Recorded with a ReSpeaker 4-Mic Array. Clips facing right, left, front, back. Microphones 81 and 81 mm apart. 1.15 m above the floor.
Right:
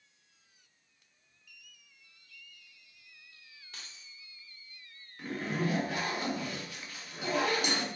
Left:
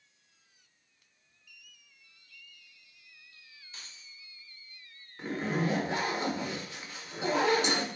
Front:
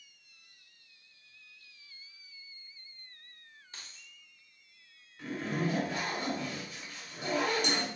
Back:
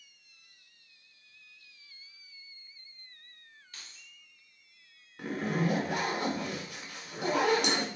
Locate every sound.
3.7 s keys jangling: 60° right, 2.5 m
5.2 s a zipper: 155° left, 1.3 m